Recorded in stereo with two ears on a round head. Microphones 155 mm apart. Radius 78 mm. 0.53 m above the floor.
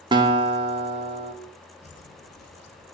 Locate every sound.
0.1 s a guitar: 25° right (ahead or behind), 0.7 m
1.8 s footsteps: 40° left (ahead or behind), 0.7 m; by 2.9 s 70° left (ahead or behind), 1.4 m